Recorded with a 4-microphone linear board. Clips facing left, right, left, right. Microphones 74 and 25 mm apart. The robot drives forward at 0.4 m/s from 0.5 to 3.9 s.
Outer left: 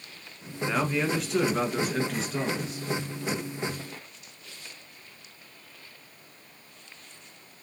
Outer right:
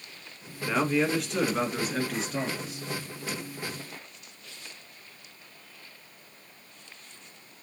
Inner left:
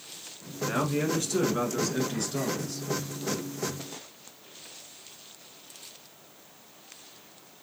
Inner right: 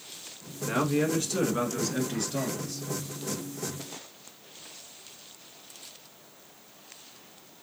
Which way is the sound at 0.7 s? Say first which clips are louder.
Outer right 2 dB, inner right 1 dB; centre (ahead or behind).